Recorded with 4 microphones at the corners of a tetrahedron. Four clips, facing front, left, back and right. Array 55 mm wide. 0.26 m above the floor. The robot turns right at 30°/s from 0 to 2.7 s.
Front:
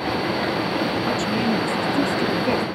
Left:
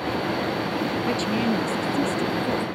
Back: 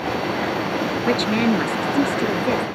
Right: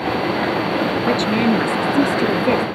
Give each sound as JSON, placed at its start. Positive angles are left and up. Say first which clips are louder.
{"t": 1.1, "sound": "a woman speaking", "louder": "right 8 dB, back 3 dB", "azimuth_deg": -145}